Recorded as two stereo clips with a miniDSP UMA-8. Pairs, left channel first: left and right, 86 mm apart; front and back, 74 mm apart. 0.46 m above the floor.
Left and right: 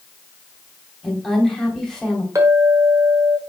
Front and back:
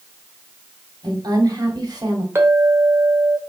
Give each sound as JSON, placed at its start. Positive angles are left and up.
{"t": 1.0, "sound": "a woman speaking", "azimuth_deg": 175, "distance_m": 2.0}
{"t": 2.4, "sound": "a clink", "azimuth_deg": -135, "distance_m": 1.2}